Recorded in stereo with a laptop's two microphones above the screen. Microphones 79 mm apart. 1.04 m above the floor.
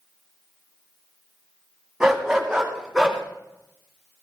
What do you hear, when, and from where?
2.0 s a dog barking: 5° right (ahead or behind), 2.5 m; by 3.2 s 10° right (ahead or behind), 3 m